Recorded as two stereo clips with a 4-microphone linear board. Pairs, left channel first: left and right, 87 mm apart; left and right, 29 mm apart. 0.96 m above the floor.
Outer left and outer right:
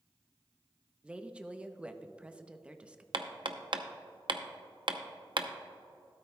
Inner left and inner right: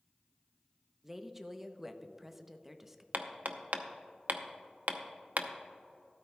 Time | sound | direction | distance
1.0 | a woman speaking | 15° right (ahead or behind) | 0.6 m
3.1 | hammering | 65° right (ahead or behind) | 0.7 m